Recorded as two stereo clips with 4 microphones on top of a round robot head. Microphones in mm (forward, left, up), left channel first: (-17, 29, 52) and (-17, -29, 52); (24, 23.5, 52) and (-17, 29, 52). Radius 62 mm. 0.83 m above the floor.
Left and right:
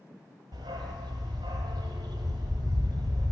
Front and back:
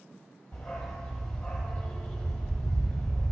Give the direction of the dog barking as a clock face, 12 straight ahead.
3 o'clock.